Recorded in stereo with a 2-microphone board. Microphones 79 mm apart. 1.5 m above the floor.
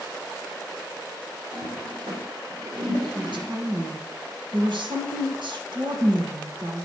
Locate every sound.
1.5 s a toilet flushing: 70° right (ahead or behind), 1.9 m
3.1 s a woman speaking: 75° right (ahead or behind), 1.5 m